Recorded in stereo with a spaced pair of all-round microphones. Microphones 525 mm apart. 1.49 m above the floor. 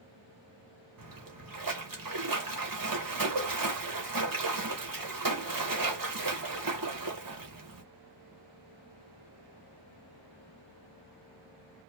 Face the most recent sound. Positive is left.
turn(degrees=-40)  # may be behind; listen again after turning